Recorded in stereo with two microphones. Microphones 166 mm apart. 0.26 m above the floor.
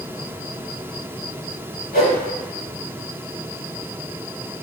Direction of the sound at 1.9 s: 65° left (ahead or behind).